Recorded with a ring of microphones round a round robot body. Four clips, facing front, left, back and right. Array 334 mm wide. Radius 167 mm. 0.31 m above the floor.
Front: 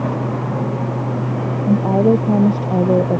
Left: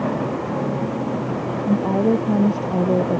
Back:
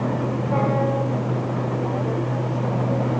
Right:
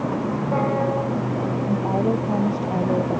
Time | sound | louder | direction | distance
1.7 | a woman speaking | left 5 dB, front 10 dB | 20° left | ?